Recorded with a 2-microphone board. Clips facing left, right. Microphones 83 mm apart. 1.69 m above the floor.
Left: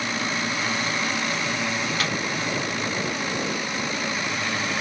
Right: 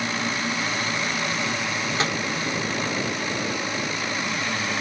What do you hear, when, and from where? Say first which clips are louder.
2.0 s a microwave: right 4 dB; 25° right (ahead or behind), 0.8 m